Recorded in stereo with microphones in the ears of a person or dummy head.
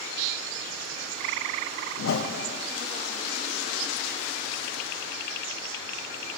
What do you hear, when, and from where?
2.0 s a whoosh: 65° left (ahead or behind), 0.8 m